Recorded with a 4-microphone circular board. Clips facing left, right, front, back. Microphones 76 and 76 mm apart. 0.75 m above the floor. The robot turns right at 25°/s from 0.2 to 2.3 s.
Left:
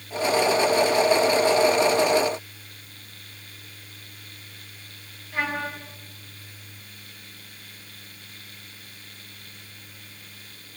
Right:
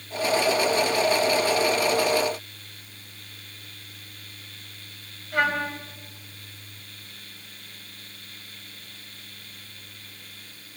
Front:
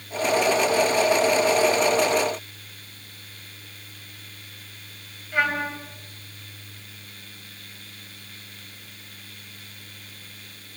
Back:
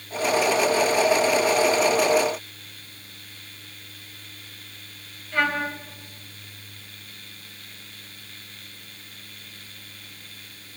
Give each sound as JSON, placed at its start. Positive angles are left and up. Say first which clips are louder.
{"t": 5.3, "sound": "a trumpet", "louder": "right 4 dB, even", "azimuth_deg": -75, "distance_m": 4.0}